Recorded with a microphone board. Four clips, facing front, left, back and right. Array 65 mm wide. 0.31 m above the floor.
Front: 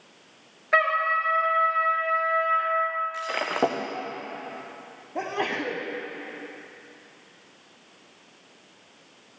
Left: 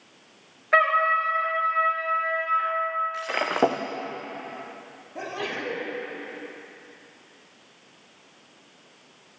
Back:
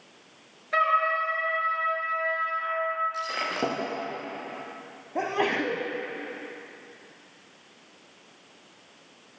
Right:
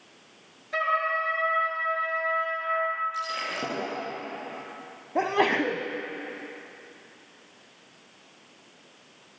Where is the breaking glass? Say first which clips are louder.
Left 6 dB, front 3 dB; 65° left, 3.5 m.